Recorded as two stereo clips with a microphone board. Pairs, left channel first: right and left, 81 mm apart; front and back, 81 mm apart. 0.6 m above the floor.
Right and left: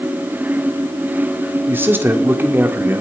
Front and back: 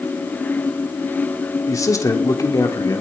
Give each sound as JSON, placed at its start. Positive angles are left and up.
{"t": 1.7, "sound": "a man speaking", "azimuth_deg": 35, "distance_m": 1.6}